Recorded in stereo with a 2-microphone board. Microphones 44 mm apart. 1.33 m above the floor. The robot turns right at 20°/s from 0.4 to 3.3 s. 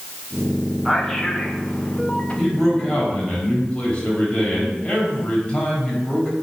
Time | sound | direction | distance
0.8 | a man speaking | centre (ahead or behind) | 2.5 m
2.4 | a man speaking | 5° left (ahead or behind) | 5.5 m